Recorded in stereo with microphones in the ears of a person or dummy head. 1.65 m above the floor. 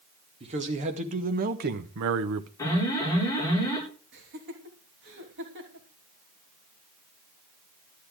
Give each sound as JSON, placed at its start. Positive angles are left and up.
{"t": 0.4, "sound": "a man speaking", "side_deg": -35, "distance_m": 2.5}
{"t": 2.6, "sound": "an alarm", "side_deg": 20, "distance_m": 8.0}
{"t": 4.1, "sound": "laughter", "side_deg": -60, "distance_m": 3.0}